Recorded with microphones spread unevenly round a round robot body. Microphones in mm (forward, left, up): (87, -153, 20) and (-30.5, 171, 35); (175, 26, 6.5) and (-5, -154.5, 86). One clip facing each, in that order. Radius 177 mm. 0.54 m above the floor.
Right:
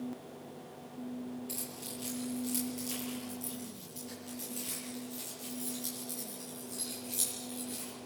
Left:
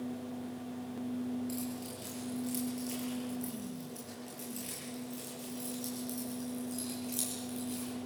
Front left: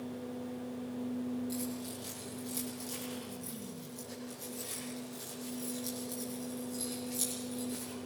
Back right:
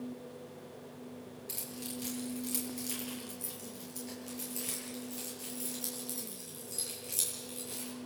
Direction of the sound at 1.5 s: 155° right.